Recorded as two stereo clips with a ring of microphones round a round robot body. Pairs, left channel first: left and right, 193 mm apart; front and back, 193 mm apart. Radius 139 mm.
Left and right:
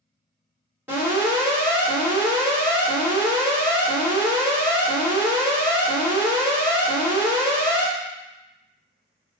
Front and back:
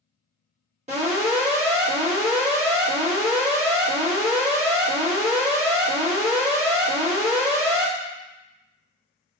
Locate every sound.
0.9 s an alarm: 165° right, 1.6 m